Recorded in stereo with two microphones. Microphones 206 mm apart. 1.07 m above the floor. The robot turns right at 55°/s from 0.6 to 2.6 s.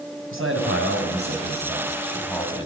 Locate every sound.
0.3 s a man speaking: 85° right, 7 m; by 2.7 s 25° left, 7 m